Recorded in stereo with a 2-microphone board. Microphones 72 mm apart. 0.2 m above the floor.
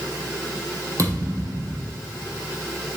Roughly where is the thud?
Right.